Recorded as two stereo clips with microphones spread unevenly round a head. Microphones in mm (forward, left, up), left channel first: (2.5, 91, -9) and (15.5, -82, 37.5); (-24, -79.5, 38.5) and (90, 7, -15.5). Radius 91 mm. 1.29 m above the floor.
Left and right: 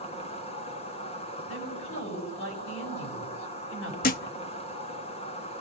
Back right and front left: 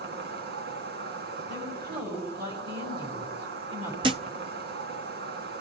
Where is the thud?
110° left, 0.7 m.